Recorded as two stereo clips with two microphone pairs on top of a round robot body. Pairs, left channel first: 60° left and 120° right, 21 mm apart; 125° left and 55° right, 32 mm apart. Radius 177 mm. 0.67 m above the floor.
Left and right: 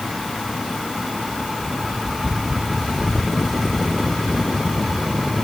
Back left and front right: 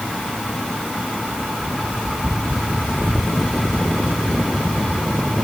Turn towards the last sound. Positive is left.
No sound to turn to.